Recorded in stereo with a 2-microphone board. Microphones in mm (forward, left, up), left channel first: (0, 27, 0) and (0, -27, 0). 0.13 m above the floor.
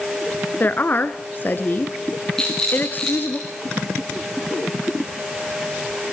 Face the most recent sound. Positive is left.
turn(degrees=10)  # may be behind; listen again after turning